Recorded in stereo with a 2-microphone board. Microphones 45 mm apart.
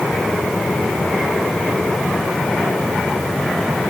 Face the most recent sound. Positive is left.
No sound to turn to.